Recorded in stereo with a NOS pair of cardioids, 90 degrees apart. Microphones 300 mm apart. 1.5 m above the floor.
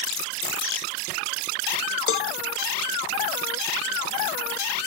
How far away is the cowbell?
About 1.2 m.